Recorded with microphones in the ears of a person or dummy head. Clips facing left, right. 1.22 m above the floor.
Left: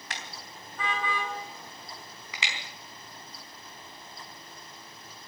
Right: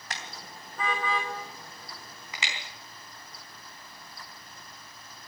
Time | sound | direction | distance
0.1 | a car horn | 35° right (ahead or behind) | 3.5 m